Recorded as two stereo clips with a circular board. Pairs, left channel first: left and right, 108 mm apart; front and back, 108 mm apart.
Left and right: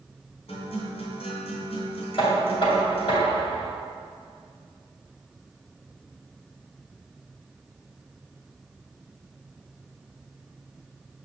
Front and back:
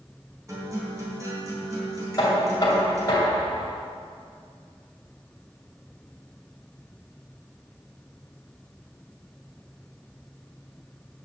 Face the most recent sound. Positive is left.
turn(degrees=55)